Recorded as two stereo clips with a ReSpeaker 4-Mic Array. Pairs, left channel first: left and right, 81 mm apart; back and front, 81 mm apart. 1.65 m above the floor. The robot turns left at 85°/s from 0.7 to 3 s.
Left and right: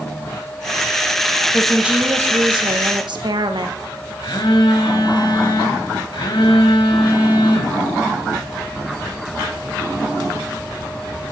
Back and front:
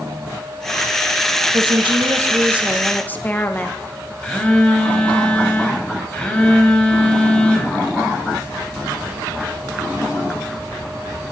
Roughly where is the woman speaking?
Ahead.